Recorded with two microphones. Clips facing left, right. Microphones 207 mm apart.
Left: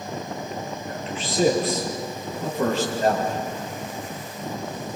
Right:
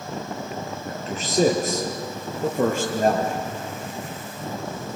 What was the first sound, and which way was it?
A man speaking, 40° right (ahead or behind).